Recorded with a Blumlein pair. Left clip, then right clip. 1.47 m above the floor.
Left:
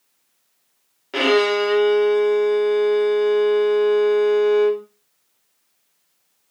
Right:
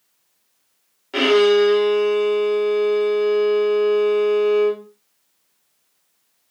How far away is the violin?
About 0.8 m.